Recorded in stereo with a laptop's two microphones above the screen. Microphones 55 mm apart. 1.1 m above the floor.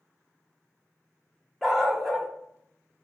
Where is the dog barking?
5° left (ahead or behind), 0.8 m.